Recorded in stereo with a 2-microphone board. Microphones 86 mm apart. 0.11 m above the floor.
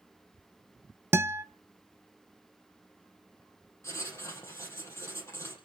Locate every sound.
1.1 s a guitar: 30° right (ahead or behind), 0.6 m
3.8 s writing: 30° left (ahead or behind), 4.5 m